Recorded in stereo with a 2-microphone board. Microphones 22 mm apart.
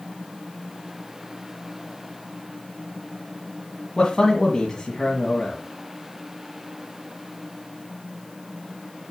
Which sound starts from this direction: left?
A man speaking, at 4.0 s.